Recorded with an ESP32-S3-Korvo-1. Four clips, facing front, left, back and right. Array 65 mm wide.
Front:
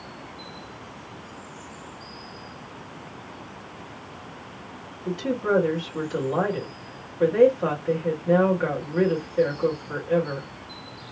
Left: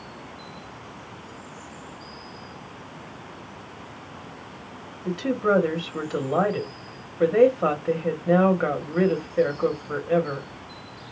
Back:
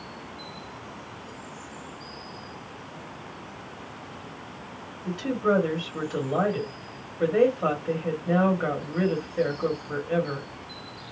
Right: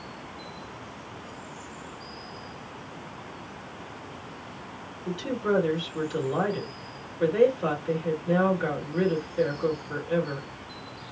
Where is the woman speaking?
90° left, 1.6 m.